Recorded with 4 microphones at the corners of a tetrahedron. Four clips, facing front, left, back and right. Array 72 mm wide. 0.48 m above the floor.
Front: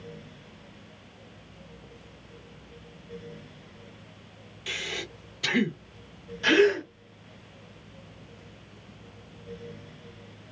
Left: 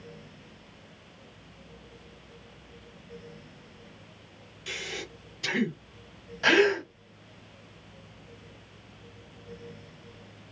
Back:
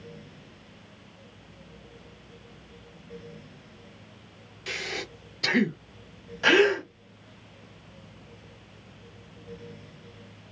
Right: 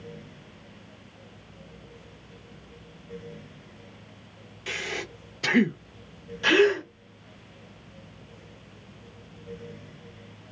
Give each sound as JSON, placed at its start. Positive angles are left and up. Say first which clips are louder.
{"t": 4.7, "sound": "breathing", "louder": "right 5 dB, back 1 dB", "azimuth_deg": -110, "distance_m": 0.6}
{"t": 6.4, "sound": "a gasp", "louder": "right 1 dB, back 1 dB", "azimuth_deg": 150, "distance_m": 1.5}